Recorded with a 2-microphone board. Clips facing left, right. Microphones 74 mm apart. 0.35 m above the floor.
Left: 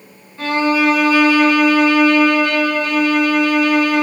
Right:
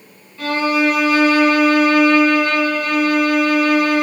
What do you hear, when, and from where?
0.4 s a violin: 25° left (ahead or behind), 1.4 m